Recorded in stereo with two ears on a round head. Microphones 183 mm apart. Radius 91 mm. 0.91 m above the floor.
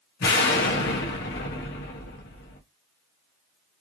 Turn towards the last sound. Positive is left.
turn(degrees=55)  # may be behind; listen again after turning